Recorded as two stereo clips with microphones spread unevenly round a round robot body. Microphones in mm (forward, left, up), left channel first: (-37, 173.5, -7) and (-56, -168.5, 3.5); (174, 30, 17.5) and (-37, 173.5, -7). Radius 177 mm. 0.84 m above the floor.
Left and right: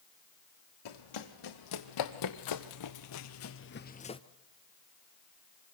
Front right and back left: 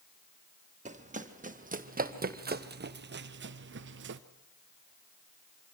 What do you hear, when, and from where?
0.8 s running footsteps: 85° left, 2.5 m; by 4.2 s 160° left, 1.0 m